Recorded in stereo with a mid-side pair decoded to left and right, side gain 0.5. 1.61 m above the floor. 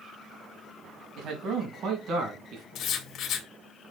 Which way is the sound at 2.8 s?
65° left.